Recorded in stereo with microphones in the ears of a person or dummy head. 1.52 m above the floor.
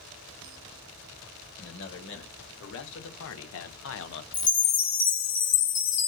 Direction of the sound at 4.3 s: 40° left (ahead or behind).